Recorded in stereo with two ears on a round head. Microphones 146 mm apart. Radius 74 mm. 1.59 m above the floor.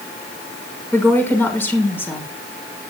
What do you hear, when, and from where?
0.9 s a woman speaking: 15° left (ahead or behind), 6 m